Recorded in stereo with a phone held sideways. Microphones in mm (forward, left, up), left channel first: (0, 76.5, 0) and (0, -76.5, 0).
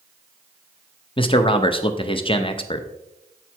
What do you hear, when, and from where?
1.2 s a man speaking: 35° left (ahead or behind), 0.7 m